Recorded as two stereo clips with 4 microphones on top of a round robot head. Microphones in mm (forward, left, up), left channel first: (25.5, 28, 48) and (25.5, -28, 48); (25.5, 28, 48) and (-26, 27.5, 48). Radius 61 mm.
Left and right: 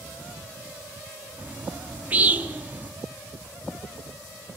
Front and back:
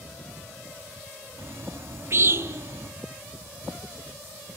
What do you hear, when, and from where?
1.4 s a bird: 150° right, 1.2 m